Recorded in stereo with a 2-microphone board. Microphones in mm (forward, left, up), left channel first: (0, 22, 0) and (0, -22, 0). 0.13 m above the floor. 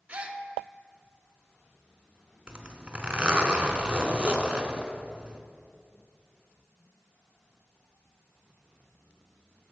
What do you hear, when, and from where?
0.1 s a gasp: 30° right (ahead or behind), 0.5 m
2.5 s a zipper: 25° right (ahead or behind), 0.6 m